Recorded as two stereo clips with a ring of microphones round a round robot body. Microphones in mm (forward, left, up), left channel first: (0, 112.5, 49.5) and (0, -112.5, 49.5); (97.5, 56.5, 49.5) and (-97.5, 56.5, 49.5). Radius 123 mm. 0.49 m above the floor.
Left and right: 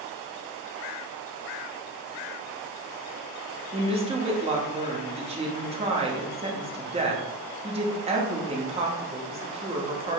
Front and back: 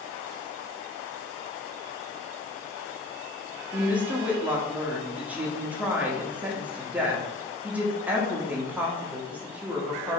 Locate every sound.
3.7 s a woman speaking: 105° right, 0.9 m